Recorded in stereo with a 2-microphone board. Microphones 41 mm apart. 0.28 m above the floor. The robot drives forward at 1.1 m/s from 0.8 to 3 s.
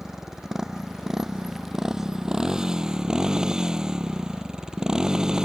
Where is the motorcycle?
10° right (ahead or behind); by 5.5 s 15° right (ahead or behind).